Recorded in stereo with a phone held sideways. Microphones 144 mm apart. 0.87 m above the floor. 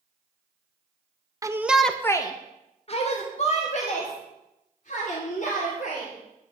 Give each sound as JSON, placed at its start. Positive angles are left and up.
{"t": 1.4, "sound": "a shout", "side_deg": -20, "distance_m": 0.7}